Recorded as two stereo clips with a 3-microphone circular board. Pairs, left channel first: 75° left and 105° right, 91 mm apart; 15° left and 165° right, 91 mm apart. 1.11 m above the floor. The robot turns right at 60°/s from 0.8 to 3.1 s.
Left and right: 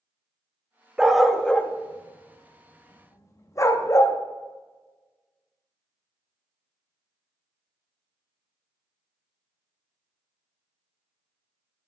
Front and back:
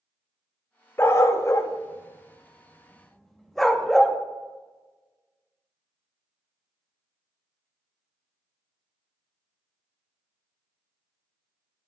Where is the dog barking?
30° right, 0.5 m; by 4.2 s 100° left, 0.5 m.